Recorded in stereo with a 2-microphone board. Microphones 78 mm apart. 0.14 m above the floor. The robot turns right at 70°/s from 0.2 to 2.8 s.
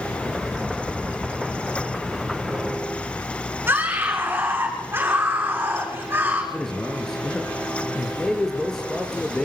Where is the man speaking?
5° left (ahead or behind), 3 m.